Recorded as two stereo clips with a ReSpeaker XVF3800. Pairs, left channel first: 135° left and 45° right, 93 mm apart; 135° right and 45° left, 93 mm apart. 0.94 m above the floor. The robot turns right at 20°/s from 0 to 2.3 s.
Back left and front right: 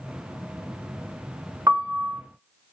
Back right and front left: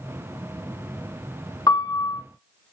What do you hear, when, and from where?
1.7 s a piano: 100° right, 0.7 m; by 2.2 s 90° right, 0.7 m